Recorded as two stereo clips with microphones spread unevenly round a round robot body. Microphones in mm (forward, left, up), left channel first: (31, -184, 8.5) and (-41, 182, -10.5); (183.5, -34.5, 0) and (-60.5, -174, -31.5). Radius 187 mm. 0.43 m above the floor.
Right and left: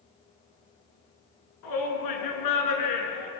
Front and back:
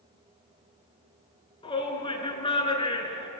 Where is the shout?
40° right, 6 m.